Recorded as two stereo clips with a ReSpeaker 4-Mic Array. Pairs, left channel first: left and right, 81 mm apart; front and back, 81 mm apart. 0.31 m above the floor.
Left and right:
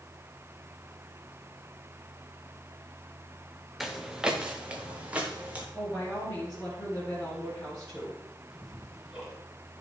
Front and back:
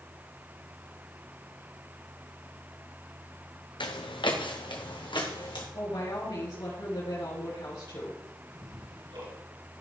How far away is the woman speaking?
About 4.5 m.